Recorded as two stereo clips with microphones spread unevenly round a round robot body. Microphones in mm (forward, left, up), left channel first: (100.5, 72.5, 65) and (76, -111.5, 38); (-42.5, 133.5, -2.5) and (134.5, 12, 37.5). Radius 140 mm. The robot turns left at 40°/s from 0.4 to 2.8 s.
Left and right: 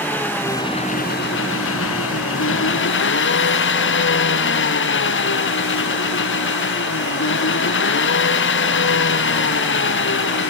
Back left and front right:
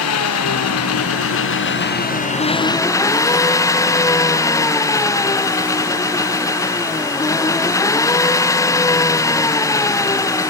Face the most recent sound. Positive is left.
turn(degrees=70)